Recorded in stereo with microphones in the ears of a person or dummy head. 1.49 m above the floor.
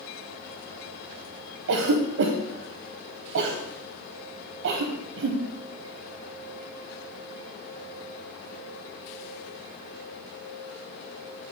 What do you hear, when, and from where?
1.7 s a cough: 65° right (ahead or behind), 0.6 m